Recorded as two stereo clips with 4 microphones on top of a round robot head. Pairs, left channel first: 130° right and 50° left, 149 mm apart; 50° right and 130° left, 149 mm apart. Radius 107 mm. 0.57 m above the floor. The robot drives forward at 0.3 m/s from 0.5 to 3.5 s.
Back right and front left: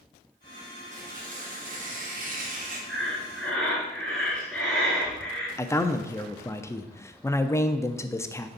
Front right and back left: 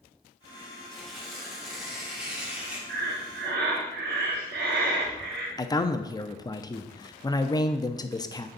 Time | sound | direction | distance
0.9 | tearing paper | 40° left | 2.5 m
2.9 | breathing | 145° left | 1.8 m
5.6 | a man speaking | 80° right | 0.7 m